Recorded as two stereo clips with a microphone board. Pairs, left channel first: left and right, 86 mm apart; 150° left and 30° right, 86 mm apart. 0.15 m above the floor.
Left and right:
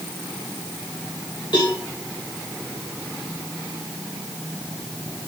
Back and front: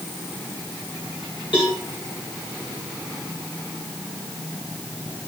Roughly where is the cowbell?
Behind left.